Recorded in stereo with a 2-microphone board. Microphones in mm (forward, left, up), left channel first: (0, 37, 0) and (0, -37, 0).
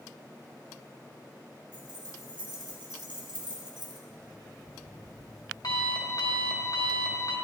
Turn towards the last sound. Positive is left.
turn(degrees=60)  # may be behind; listen again after turning